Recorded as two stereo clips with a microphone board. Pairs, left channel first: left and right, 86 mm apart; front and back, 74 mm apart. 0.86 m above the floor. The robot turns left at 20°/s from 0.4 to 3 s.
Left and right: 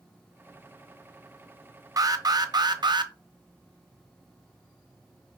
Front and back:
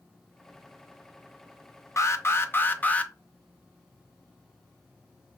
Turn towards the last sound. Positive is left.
turn(degrees=-70)